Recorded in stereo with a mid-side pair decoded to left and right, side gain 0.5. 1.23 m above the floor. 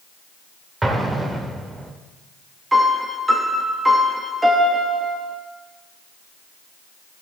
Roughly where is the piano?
Ahead.